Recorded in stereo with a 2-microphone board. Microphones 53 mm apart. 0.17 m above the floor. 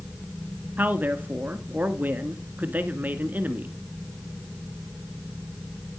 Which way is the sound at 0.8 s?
35° right (ahead or behind).